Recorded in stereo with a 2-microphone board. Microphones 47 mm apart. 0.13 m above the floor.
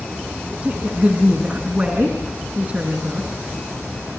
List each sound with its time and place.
0.5 s a woman speaking: 30° right (ahead or behind), 6 m